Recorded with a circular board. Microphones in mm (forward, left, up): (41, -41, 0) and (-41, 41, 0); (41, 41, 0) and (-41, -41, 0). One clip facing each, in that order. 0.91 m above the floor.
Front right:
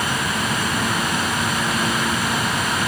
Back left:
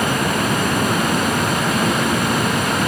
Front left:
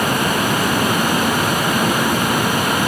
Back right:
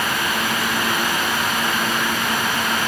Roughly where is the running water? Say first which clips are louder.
Back left 5 dB, front left 5 dB; left.